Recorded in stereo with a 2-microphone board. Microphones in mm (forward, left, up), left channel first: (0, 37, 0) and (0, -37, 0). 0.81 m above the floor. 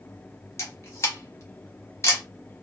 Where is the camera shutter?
40° left (ahead or behind), 1.4 m.